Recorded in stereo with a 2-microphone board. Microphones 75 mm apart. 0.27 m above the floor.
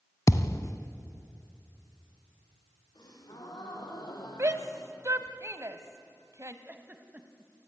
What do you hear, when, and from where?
0.3 s a thud: 45° left (ahead or behind), 1.0 m
3.0 s a gasp: 70° left (ahead or behind), 4 m
4.4 s a shout: 45° right (ahead or behind), 1.8 m
6.7 s a giggle: 25° right (ahead or behind), 1.7 m